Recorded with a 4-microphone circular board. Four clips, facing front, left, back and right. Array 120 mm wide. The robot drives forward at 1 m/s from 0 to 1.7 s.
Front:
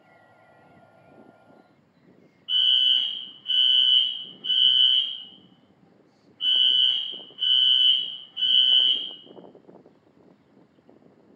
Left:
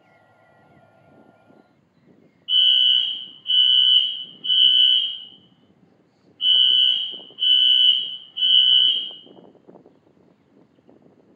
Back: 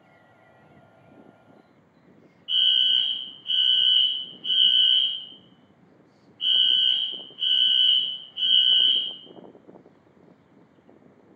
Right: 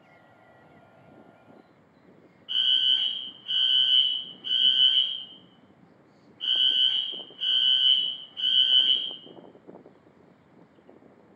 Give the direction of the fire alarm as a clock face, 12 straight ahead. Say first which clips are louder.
Left 7 dB, even; 3 o'clock.